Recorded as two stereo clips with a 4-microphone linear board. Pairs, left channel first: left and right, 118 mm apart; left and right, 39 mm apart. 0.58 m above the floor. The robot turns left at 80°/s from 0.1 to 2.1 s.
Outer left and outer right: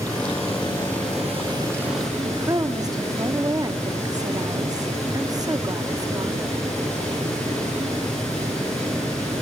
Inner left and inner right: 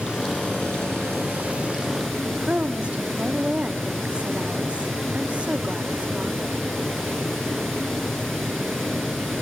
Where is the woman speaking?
30° right (ahead or behind), 1.0 m.